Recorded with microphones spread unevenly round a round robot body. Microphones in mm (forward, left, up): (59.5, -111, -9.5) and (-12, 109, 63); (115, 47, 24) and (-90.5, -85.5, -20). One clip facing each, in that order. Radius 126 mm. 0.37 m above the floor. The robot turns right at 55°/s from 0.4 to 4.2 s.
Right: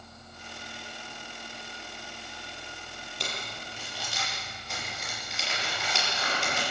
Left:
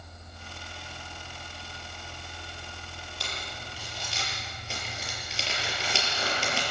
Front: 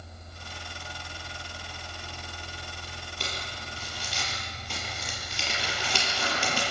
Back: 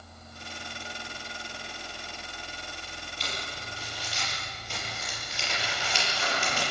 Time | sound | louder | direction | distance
3.2 | crumpling | right 3 dB, front 1 dB | 5° right | 6 m